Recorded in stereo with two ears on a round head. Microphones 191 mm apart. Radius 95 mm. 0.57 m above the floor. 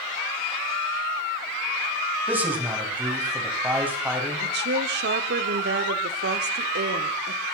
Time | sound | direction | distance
2.3 | a man speaking | 10° right (ahead or behind) | 3.5 m
4.4 | a woman speaking | 50° right (ahead or behind) | 1.3 m